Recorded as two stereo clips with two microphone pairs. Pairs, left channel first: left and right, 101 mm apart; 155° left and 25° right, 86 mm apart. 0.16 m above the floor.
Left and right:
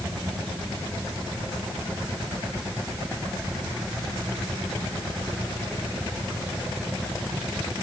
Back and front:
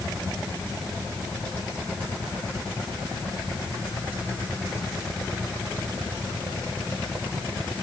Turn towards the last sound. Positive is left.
No sound to turn to.